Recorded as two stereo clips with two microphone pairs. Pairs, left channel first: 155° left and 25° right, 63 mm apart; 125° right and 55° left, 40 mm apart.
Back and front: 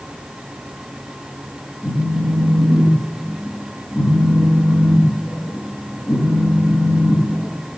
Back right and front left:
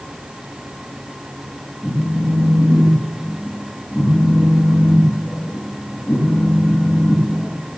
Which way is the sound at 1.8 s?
160° right.